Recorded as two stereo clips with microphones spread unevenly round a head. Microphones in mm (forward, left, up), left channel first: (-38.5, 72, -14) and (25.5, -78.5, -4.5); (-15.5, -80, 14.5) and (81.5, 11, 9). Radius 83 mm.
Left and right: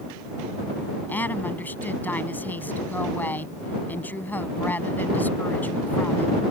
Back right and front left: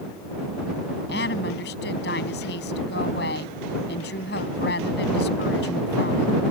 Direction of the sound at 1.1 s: 165° right.